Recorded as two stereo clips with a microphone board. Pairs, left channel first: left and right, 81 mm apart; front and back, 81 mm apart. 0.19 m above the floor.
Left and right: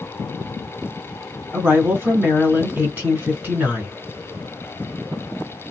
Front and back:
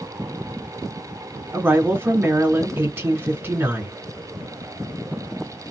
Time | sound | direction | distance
1.5 | a woman speaking | 140° right | 1.6 m